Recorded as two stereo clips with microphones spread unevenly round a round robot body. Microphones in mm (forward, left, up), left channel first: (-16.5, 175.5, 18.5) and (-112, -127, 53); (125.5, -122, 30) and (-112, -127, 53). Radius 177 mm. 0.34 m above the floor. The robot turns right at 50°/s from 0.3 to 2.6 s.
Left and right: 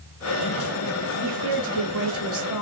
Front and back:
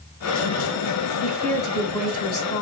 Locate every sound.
1.2 s a woman speaking: 95° right, 2.5 m; by 2.6 s 25° right, 2.5 m